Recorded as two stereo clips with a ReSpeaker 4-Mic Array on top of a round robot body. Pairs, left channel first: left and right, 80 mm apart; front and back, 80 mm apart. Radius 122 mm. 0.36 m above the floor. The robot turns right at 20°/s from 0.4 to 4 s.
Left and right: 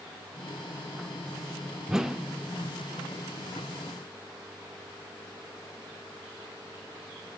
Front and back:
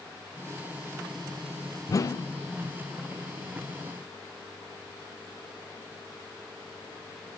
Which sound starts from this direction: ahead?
A whoosh, at 1.9 s.